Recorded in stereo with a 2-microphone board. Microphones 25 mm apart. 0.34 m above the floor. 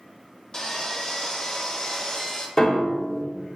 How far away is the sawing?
About 0.9 m.